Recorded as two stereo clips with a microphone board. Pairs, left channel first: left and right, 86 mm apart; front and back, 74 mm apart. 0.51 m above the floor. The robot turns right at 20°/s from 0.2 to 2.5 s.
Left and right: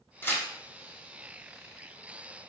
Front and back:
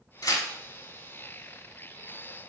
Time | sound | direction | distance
0.2 | tearing paper | 30° left | 0.7 m